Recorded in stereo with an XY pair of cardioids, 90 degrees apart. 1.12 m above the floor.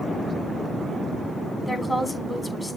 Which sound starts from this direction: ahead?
A woman speaking, at 1.7 s.